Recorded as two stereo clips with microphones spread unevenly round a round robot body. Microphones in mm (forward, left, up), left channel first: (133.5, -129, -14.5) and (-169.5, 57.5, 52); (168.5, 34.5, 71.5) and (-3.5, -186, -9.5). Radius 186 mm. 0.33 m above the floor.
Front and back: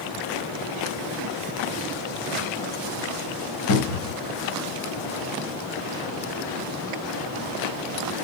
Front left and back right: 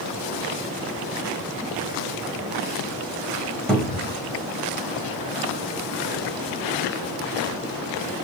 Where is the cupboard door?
50° right, 1.5 m.